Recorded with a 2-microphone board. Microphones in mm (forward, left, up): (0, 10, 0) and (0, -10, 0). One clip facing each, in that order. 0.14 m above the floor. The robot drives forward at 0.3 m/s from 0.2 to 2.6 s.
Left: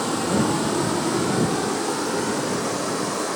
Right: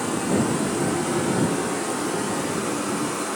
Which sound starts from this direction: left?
Running water, at 0.0 s.